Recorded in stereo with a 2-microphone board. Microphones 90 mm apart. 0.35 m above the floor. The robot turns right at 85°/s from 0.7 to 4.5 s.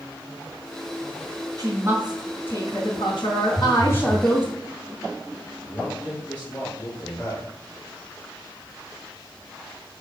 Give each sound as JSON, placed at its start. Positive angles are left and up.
{"t": 1.6, "sound": "a woman speaking", "azimuth_deg": -50, "distance_m": 2.0}
{"t": 3.5, "sound": "a phone buzzing", "azimuth_deg": -95, "distance_m": 0.7}
{"t": 5.6, "sound": "a man speaking", "side_deg": 15, "distance_m": 1.8}